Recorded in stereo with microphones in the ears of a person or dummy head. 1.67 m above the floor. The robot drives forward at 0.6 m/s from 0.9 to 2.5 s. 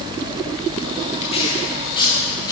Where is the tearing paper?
35° left (ahead or behind), 1.1 m; by 2.5 s 20° left (ahead or behind), 1.8 m.